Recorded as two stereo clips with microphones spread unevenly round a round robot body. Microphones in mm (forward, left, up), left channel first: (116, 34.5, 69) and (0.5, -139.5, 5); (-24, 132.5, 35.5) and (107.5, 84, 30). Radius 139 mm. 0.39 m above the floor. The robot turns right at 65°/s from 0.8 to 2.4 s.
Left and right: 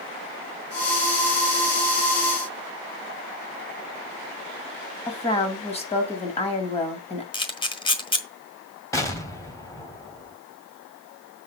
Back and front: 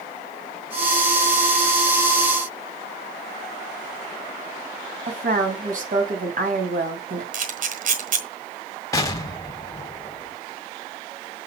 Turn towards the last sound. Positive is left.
turn(degrees=150)